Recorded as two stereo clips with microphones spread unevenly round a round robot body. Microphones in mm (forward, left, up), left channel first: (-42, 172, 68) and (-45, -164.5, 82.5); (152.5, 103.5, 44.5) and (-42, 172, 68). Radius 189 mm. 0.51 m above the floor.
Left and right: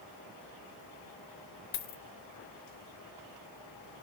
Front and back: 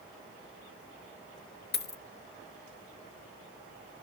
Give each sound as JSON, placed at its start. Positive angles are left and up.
{"t": 1.7, "sound": "a dropped coin", "azimuth_deg": 25, "distance_m": 0.8}